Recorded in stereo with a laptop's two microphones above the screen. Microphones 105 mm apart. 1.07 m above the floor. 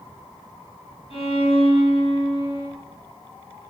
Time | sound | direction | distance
1.1 | a violin | 70° left (ahead or behind) | 5.5 m